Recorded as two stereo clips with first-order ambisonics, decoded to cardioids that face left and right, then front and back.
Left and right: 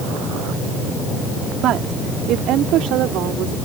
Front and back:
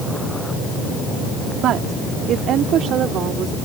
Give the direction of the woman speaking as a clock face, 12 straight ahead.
4 o'clock.